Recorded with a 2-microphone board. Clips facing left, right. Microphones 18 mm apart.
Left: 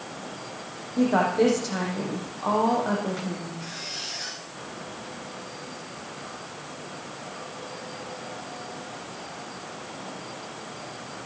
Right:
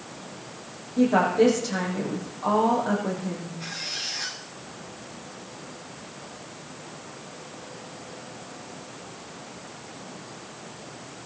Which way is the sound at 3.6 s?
5° right (ahead or behind).